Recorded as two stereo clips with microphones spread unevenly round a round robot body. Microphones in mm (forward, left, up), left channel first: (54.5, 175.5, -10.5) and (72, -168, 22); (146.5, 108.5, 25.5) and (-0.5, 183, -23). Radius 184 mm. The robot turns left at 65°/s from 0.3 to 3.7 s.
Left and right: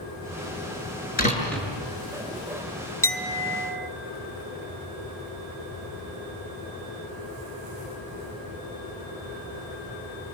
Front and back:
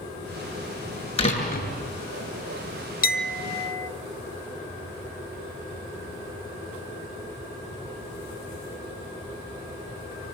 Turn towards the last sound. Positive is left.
turn(degrees=-30)